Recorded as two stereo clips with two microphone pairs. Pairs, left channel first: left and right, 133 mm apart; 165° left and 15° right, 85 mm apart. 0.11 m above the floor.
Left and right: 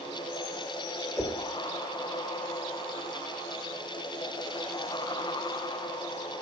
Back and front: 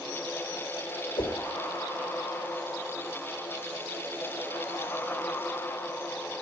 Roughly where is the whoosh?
Behind.